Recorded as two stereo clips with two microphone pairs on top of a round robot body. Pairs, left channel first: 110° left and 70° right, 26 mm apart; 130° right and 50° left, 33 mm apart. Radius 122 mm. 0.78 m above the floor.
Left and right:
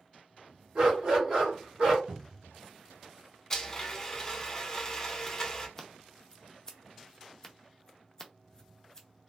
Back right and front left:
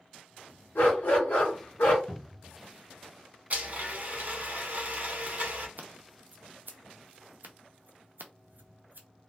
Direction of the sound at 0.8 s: 120° right.